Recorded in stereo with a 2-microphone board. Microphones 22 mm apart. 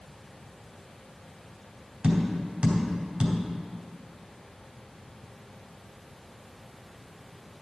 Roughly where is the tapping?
Right.